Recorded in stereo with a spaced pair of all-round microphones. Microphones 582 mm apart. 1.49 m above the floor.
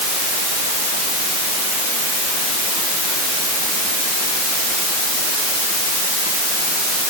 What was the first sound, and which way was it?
Only background noise.